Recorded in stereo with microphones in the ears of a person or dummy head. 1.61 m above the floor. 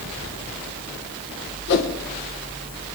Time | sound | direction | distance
1.7 | a whoosh | 65° left (ahead or behind) | 1.4 m